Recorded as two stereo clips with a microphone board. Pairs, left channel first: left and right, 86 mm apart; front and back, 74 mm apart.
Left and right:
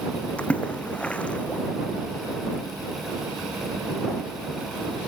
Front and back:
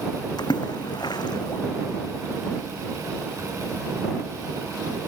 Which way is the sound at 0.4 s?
15° left.